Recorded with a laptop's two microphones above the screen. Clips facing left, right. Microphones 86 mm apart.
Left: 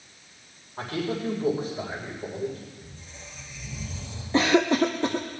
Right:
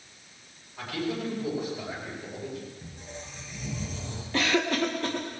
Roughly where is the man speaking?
Left.